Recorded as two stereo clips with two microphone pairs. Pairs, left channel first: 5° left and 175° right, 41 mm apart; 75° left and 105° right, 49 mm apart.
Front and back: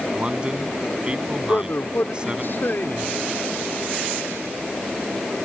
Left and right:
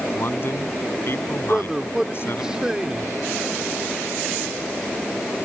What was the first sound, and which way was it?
A man speaking, 120° left.